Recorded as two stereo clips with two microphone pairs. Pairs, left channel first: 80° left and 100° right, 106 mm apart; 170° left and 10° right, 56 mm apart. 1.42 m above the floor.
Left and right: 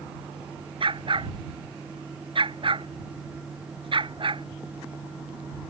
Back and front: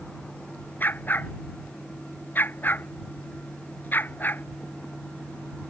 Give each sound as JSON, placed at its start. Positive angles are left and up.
{"t": 0.8, "sound": "a dog barking", "azimuth_deg": -135}